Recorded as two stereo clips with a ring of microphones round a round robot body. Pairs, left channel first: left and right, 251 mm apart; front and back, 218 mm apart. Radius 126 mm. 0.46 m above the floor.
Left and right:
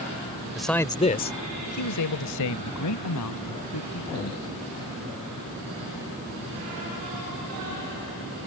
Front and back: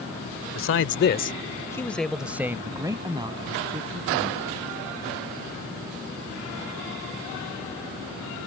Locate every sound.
0.6 s a man speaking: 5° right; by 4.5 s 120° left